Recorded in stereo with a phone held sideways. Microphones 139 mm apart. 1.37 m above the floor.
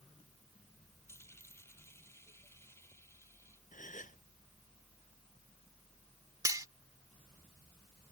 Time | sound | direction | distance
1.1 | a dropped coin | 20° left (ahead or behind) | ?
3.7 | a gasp | 70° left (ahead or behind) | ?
6.5 | cutlery clinking | 25° right (ahead or behind) | ?